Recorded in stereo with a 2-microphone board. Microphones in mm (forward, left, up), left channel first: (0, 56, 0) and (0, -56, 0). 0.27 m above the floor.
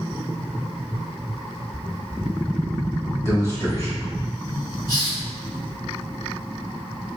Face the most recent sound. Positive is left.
turn(degrees=35)  # may be behind; listen again after turning